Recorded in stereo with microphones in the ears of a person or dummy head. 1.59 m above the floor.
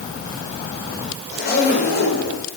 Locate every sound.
1.3 s a zipper: 50° left (ahead or behind), 6 m